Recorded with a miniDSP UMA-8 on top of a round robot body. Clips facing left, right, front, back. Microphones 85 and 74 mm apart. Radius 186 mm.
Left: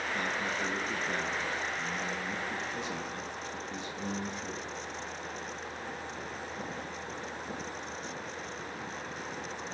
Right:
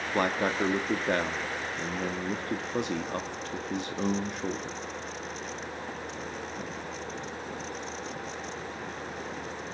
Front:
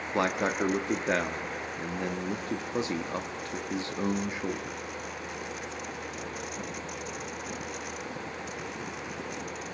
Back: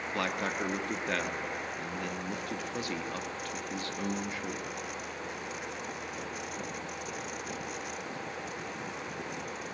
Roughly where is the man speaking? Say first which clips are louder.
Right 10 dB, front 6 dB; ahead right.